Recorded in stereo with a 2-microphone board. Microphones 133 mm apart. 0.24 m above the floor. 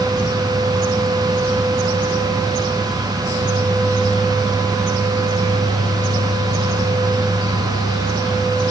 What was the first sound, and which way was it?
Only background noise.